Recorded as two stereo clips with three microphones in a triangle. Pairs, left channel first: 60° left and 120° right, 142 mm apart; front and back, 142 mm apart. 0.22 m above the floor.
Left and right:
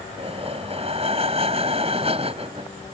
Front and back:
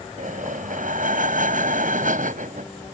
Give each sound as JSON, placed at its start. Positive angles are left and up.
{"t": 0.2, "sound": "breathing", "azimuth_deg": -165}